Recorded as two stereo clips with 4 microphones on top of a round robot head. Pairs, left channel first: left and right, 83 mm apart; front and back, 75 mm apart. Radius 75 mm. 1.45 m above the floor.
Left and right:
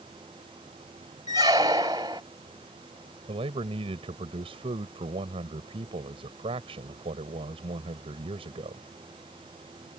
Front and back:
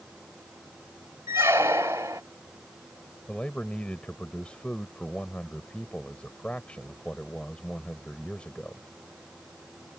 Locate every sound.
1.3 s a squeak: 125° right
3.3 s a man speaking: 80° right